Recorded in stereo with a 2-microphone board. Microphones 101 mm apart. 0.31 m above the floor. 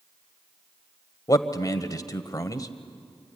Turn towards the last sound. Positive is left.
turn(degrees=35)  # may be behind; listen again after turning